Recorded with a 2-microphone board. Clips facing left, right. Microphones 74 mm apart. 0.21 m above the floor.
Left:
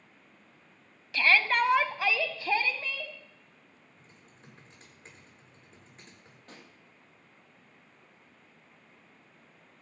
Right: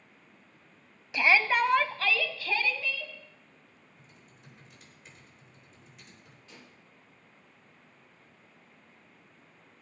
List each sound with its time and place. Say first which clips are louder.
1.1 s a shout: right 1 dB; 20° right (ahead or behind), 0.9 m; by 3.1 s 40° left (ahead or behind), 1.3 m
4.0 s typing on a keyboard: left 1 dB; 35° left (ahead or behind), 8 m
6.5 s a pop: left 2 dB; 50° left (ahead or behind), 7 m